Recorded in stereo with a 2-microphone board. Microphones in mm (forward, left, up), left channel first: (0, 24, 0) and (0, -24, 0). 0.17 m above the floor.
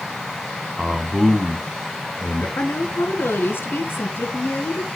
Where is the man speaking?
25° right (ahead or behind), 1.4 m; by 2.5 s 35° left (ahead or behind), 1.6 m.